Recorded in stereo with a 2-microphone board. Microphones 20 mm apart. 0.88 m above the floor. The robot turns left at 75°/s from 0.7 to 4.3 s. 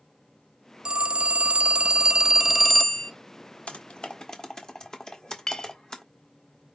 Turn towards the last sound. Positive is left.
turn(degrees=25)  # may be behind; listen again after turning